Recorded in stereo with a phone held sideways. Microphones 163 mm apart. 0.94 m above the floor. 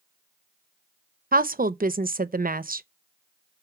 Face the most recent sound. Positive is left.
turn(degrees=-60)  # may be behind; listen again after turning